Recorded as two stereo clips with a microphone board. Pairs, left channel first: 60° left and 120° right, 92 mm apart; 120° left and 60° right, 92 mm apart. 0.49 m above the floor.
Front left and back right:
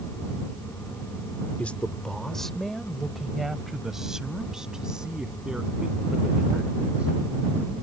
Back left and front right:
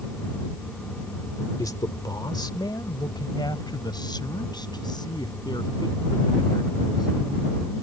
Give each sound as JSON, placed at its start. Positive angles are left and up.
{"t": 1.6, "sound": "a man speaking", "azimuth_deg": 125}